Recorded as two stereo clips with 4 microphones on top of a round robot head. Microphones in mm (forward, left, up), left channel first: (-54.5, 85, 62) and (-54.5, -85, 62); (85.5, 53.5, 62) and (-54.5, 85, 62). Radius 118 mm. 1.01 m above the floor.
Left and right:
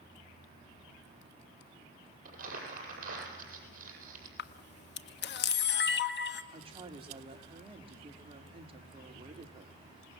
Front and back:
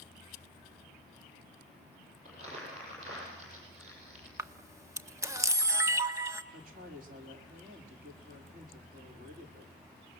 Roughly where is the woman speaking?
Behind right.